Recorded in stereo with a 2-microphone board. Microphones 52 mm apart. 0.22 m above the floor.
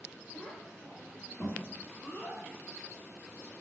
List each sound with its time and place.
0.3 s a child speaking: 35° left (ahead or behind), 1.8 m